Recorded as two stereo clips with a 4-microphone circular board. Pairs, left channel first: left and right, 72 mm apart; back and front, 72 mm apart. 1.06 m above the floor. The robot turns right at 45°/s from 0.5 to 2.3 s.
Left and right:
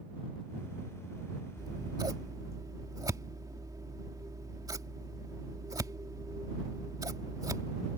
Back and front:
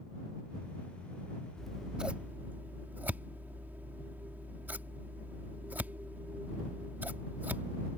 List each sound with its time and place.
1.6 s scissors: 95° right; by 8.0 s 65° right